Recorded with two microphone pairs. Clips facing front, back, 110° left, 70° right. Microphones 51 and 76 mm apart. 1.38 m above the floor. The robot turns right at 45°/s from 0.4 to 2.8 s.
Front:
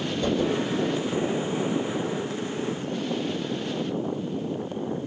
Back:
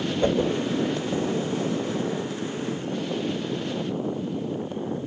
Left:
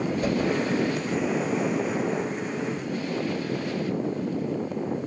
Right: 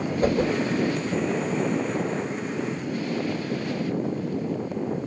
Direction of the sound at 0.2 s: 120° right.